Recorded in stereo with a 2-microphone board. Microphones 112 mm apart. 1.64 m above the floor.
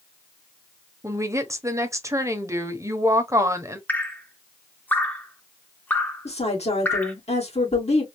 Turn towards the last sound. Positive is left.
turn(degrees=75)  # may be behind; listen again after turning